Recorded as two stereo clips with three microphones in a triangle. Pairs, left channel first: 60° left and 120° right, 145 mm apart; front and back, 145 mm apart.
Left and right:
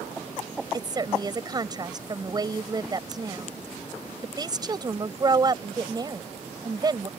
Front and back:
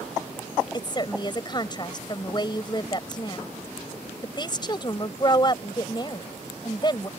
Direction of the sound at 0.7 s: 60° right.